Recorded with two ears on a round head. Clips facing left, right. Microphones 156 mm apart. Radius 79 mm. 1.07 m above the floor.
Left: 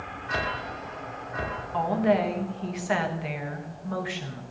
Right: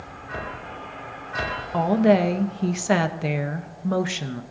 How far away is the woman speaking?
About 1.0 m.